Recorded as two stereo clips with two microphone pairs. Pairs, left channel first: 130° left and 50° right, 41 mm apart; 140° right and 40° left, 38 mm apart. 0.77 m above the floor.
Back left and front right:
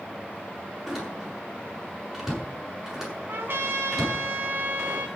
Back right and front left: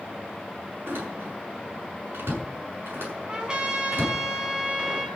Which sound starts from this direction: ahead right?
A trumpet, at 3.3 s.